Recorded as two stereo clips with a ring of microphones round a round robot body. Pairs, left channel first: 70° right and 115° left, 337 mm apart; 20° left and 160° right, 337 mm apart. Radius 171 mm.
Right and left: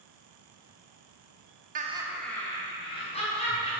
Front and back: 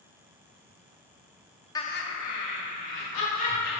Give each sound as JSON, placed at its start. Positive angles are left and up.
{"t": 1.8, "sound": "laughter", "azimuth_deg": 90, "distance_m": 0.7}